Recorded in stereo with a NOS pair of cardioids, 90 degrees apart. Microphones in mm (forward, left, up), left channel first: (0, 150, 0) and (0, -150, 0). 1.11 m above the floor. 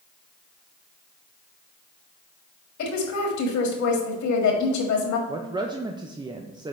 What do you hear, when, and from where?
2.8 s a woman speaking: 70° left, 1.9 m
5.3 s a woman speaking: 15° right, 0.5 m